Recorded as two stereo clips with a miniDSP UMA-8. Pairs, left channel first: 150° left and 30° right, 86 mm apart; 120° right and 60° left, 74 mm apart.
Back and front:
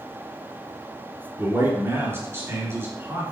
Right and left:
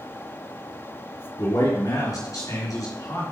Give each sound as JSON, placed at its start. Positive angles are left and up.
{"t": 1.4, "sound": "a man speaking", "azimuth_deg": -90, "distance_m": 3.0}